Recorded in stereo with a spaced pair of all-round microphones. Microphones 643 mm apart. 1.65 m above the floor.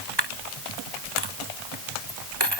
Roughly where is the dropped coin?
Right.